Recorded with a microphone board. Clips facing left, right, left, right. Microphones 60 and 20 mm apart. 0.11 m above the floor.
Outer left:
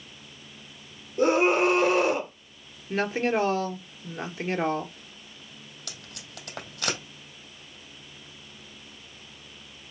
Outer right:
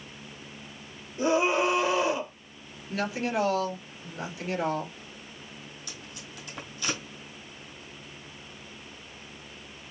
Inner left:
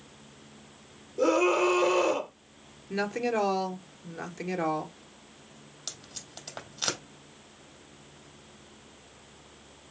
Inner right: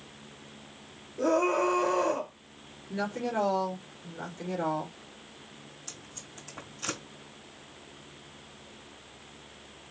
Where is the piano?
I don't hear a piano.